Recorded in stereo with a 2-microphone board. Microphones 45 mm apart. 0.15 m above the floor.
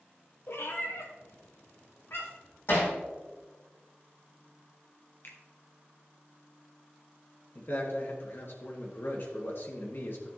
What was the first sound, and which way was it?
A cat meowing, 65° left (ahead or behind).